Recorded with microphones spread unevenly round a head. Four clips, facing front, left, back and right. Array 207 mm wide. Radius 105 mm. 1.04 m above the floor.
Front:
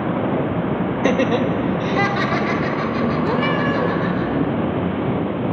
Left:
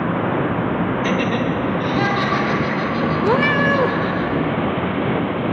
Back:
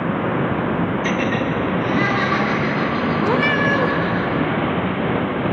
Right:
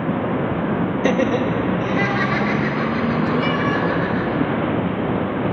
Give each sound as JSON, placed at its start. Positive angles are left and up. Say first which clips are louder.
{"t": 1.0, "sound": "laughter", "louder": "right 1 dB, front 3 dB", "azimuth_deg": -35, "distance_m": 1.4}
{"t": 3.2, "sound": "a cat meowing", "louder": "left 3 dB, back 1 dB", "azimuth_deg": 105, "distance_m": 1.8}